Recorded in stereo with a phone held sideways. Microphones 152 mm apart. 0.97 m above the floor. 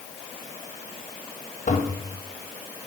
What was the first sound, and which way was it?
A toilet flushing, 50° left (ahead or behind).